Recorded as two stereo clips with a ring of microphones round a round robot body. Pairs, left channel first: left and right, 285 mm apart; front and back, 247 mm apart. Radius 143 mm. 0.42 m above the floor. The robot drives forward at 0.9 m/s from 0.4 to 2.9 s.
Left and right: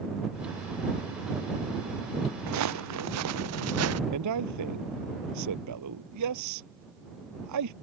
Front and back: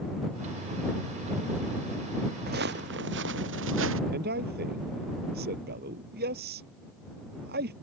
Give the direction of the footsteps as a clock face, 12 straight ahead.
4 o'clock.